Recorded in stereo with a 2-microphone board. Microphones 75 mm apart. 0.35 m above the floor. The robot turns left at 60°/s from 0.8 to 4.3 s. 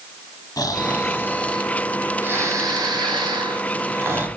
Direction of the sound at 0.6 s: 55° left.